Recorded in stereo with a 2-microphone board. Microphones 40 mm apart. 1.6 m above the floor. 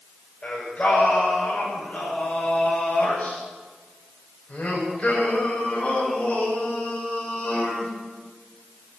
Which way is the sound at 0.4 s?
35° left (ahead or behind).